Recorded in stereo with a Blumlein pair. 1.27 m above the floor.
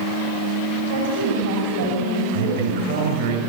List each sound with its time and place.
0.9 s a woman speaking: 65° right, 5.5 m; by 3.3 s 70° right, 9.5 m
2.3 s a man speaking: 60° right, 6 m